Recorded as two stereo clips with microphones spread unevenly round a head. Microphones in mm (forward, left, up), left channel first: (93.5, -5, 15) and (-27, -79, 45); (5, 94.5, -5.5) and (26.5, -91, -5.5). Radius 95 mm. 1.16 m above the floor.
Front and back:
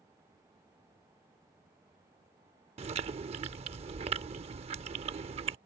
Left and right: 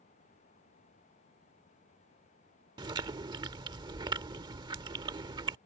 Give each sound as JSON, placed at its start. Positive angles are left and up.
{"t": 2.8, "sound": "chewing", "azimuth_deg": -145}